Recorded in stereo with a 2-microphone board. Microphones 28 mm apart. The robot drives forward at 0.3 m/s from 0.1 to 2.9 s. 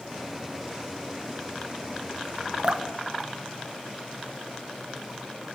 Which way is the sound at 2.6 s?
40° right (ahead or behind).